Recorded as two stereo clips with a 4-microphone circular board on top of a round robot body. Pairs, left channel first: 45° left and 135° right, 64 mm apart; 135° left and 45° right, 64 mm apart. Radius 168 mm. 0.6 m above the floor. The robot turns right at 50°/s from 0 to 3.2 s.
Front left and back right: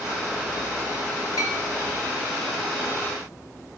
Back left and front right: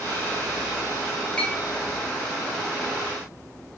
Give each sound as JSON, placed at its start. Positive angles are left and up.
{"t": 1.4, "sound": "a clink", "azimuth_deg": 65, "distance_m": 0.9}